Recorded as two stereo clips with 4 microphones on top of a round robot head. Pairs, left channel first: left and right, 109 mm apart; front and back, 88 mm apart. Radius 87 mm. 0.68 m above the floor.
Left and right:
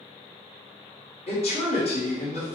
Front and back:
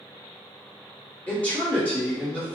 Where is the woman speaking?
75° left, 1.6 m.